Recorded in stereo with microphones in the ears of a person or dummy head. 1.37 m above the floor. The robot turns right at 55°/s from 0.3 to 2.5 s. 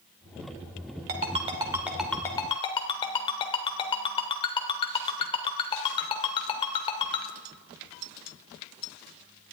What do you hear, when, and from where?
1.1 s a ringtone: 50° right (ahead or behind), 2 m; by 7.3 s 25° left (ahead or behind), 2 m